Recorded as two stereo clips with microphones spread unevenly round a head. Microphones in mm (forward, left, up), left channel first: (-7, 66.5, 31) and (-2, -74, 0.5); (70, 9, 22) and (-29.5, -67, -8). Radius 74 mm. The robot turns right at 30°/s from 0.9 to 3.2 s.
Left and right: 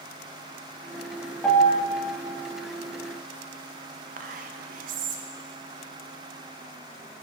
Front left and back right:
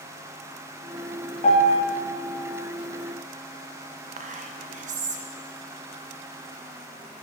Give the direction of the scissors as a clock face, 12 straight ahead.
I don't hear scissors.